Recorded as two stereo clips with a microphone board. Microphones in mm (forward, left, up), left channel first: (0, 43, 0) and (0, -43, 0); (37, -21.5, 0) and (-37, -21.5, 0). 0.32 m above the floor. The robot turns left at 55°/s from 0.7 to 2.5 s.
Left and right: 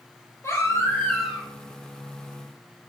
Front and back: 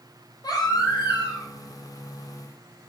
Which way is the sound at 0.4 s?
30° left.